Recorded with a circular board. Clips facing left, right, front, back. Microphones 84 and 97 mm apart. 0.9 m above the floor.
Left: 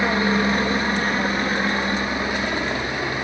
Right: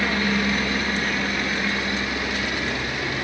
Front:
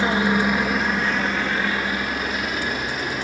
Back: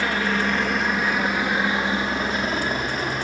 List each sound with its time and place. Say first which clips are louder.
0.0 s a helicopter: left 3 dB, front 3 dB; 50° left; by 3.2 s 140° left